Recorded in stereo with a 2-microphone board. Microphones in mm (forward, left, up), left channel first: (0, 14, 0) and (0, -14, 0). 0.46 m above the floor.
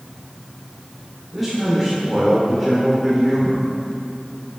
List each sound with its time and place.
1.3 s a man speaking: 5° right (ahead or behind), 1.4 m